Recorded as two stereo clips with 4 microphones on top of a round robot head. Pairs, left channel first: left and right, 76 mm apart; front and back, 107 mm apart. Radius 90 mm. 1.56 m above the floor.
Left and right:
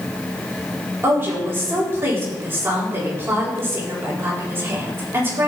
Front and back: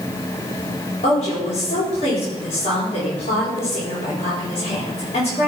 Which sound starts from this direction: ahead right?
A woman speaking, at 1.0 s.